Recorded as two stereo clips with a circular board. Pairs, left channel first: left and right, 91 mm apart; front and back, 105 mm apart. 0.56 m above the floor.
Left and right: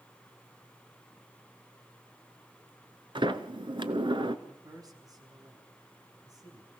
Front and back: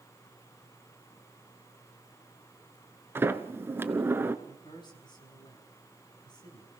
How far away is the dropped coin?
I don't hear a dropped coin.